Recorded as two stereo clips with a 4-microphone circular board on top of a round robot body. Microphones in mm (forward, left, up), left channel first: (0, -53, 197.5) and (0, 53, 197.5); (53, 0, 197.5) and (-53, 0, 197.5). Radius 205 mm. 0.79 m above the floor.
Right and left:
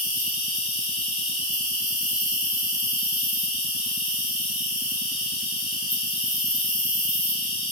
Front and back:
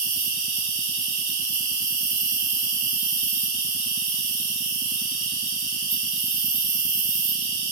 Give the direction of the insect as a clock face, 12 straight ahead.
4 o'clock.